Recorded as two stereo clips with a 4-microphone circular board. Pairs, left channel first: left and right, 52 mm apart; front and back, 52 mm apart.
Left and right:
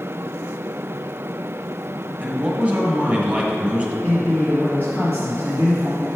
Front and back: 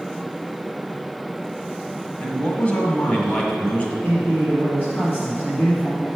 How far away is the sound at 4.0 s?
About 2 m.